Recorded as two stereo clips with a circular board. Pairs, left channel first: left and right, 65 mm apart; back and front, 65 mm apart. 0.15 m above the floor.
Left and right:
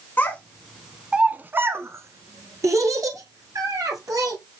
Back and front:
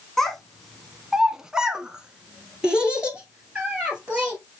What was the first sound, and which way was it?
A child speaking, 105° left.